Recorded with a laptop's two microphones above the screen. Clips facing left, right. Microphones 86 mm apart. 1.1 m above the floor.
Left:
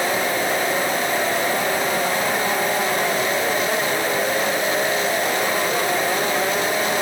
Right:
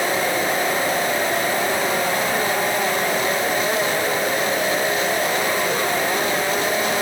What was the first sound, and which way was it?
Only background noise.